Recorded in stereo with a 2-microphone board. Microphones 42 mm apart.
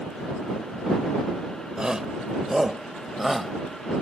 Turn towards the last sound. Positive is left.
turn(degrees=0)  # may be behind; listen again after turning